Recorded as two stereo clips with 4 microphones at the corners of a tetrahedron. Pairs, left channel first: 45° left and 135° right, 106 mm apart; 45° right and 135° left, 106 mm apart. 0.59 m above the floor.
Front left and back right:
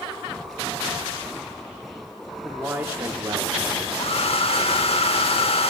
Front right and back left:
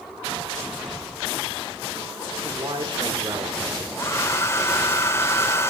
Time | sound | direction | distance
2.4 | a man speaking | 135° left | 1.1 m
4.0 | a hair dryer | 20° left | 0.8 m